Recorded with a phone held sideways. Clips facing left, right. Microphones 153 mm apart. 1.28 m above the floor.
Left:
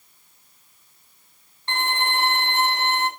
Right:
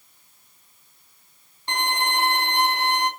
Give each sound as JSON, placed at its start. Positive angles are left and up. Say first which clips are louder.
{"t": 1.7, "sound": "a violin", "louder": "even", "side_deg": -15, "distance_m": 0.6}